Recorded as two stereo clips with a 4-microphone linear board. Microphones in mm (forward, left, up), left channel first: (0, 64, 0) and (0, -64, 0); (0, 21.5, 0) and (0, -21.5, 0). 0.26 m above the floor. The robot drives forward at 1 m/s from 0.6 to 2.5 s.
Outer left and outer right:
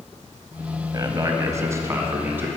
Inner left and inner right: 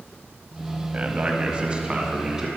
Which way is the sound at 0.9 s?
30° right (ahead or behind).